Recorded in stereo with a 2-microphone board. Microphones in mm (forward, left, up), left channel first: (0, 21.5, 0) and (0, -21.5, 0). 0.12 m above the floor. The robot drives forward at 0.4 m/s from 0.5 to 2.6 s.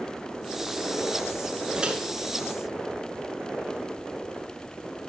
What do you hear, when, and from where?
1.8 s a microwave: 25° right (ahead or behind), 1.4 m